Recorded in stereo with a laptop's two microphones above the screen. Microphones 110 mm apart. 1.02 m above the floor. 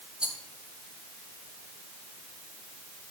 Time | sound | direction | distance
0.2 | a rattle | 10° right (ahead or behind) | 2 m